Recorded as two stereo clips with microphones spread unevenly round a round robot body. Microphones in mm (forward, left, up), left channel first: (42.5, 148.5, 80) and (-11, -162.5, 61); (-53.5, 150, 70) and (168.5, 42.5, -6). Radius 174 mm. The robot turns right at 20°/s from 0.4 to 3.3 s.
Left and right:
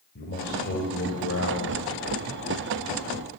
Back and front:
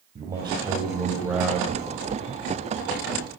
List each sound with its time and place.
0.1 s a man speaking: 30° left, 2.5 m; by 1.8 s 55° left, 2.5 m